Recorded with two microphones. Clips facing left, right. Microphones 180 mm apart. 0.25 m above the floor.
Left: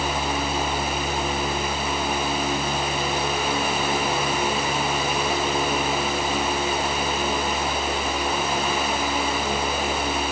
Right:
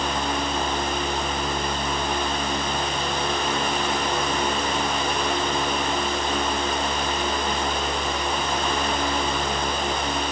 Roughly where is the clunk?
No clunk in this recording.